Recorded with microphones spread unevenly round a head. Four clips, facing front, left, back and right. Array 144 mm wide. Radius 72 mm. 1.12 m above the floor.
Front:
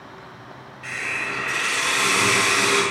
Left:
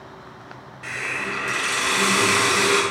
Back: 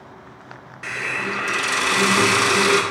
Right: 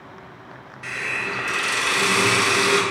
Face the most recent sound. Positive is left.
turn(degrees=-175)